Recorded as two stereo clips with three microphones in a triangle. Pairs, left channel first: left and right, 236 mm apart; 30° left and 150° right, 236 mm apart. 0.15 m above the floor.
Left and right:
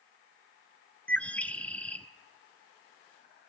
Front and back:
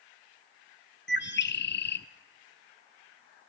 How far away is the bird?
About 0.6 m.